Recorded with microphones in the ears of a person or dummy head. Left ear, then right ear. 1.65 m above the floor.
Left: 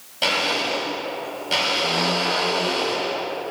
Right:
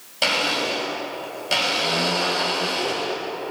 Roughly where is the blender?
Centre.